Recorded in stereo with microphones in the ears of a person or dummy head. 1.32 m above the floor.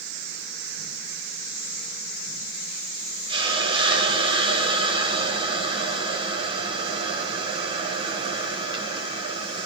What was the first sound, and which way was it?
A hiss, 35° right (ahead or behind).